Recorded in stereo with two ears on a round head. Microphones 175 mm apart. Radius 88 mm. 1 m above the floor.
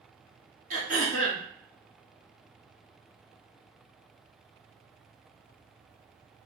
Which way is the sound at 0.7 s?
45° right (ahead or behind).